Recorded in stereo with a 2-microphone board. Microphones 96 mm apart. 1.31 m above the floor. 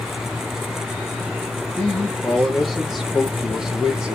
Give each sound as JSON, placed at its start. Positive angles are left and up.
{"t": 1.8, "sound": "a man speaking", "side_deg": 15, "distance_m": 3.0}